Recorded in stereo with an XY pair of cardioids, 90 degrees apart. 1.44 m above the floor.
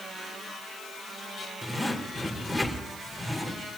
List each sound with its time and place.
1.6 s a zipper: 5° right, 4.5 m